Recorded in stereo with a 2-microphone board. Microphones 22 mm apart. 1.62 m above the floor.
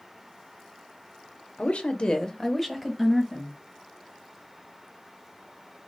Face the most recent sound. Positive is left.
turn(degrees=-20)  # may be behind; listen again after turning